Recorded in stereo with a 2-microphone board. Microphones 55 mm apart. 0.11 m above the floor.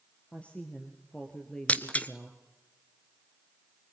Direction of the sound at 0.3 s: 25° left (ahead or behind).